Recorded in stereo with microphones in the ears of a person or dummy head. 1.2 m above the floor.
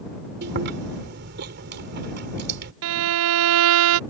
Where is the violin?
70° right (ahead or behind).